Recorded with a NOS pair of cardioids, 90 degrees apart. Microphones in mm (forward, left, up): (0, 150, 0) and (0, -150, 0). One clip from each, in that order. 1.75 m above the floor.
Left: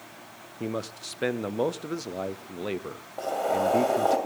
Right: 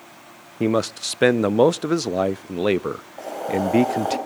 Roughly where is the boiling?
Ahead.